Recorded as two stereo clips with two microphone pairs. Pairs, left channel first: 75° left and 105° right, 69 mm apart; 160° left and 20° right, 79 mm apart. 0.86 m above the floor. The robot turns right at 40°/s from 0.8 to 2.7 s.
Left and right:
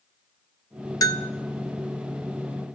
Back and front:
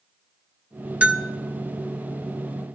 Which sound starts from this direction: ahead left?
A bell, at 1.0 s.